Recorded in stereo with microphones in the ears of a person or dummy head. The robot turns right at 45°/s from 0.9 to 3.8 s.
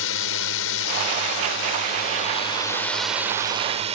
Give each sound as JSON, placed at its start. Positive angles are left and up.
{"t": 0.0, "sound": "a drone", "azimuth_deg": 85}